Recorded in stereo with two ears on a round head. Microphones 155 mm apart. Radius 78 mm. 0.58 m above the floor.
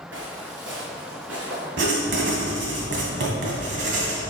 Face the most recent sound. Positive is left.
turn(degrees=-70)  # may be behind; listen again after turning